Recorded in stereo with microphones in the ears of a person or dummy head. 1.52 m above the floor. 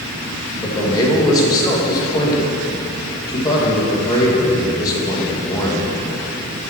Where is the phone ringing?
I don't hear a phone ringing.